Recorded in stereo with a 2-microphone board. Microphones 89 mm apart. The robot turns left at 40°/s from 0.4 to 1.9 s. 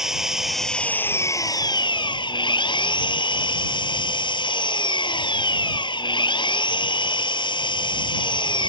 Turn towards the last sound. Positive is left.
turn(degrees=125)